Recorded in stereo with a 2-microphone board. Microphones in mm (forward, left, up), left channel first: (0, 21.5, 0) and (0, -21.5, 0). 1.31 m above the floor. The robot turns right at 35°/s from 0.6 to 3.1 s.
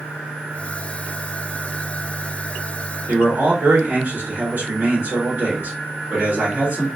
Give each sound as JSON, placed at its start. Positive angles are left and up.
{"t": 3.1, "sound": "a man speaking", "side_deg": -60, "distance_m": 2.5}